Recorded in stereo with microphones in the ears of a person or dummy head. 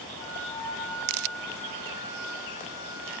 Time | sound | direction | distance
0.2 | a flute | 25° left (ahead or behind) | 9 m